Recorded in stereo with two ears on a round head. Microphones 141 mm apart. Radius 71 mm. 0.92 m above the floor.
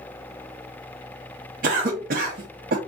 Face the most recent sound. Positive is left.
turn(degrees=-55)  # may be behind; listen again after turning